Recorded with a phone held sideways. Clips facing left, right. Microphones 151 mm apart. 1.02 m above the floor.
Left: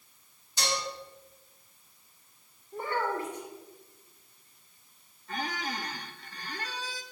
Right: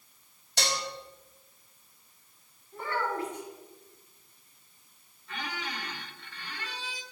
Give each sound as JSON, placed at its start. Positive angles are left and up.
{"t": 0.6, "sound": "dishes clattering", "side_deg": -75, "distance_m": 1.0}
{"t": 2.7, "sound": "a child speaking", "side_deg": 25, "distance_m": 1.6}
{"t": 5.3, "sound": "a squeak", "side_deg": 40, "distance_m": 0.5}